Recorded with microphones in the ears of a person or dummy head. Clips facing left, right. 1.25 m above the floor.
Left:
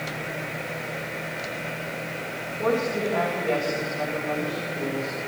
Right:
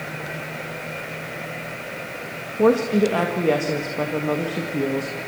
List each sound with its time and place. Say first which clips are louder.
2.6 s a woman speaking: right 8 dB; 65° right (ahead or behind), 1.8 m